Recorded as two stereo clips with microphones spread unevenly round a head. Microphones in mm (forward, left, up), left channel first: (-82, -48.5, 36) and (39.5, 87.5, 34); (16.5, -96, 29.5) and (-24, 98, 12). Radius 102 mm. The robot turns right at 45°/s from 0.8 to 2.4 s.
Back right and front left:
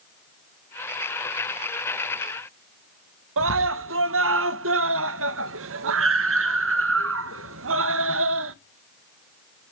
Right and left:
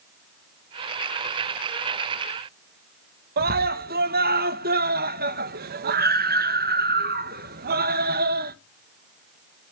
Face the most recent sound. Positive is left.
turn(degrees=55)